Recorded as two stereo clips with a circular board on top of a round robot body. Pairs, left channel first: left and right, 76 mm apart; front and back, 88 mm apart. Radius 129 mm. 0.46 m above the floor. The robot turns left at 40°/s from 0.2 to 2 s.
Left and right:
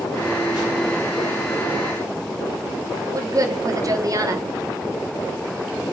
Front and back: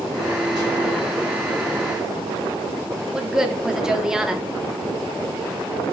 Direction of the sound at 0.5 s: 5° right.